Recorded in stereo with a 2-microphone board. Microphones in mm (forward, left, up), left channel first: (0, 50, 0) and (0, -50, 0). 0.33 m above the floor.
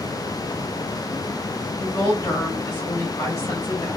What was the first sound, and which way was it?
A woman speaking, 40° left (ahead or behind).